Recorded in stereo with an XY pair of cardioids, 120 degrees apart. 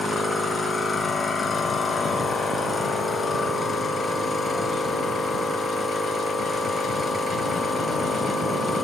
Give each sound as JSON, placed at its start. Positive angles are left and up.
{"t": 0.0, "sound": "a machine running", "azimuth_deg": 20, "distance_m": 0.8}